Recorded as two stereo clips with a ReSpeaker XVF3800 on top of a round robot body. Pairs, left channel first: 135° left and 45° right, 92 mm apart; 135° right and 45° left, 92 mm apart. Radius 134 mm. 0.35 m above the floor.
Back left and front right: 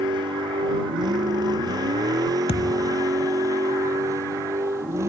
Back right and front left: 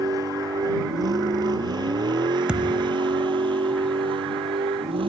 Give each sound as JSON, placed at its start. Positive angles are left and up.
{"t": 0.0, "sound": "a vehicle", "azimuth_deg": -5}
{"t": 2.5, "sound": "a thud", "azimuth_deg": 125}